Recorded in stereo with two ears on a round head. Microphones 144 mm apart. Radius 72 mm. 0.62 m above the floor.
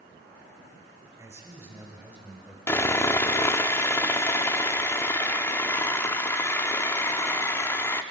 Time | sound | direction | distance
1.2 | a man speaking | 20° right (ahead or behind) | 4 m
2.7 | sawing | 15° left (ahead or behind) | 0.6 m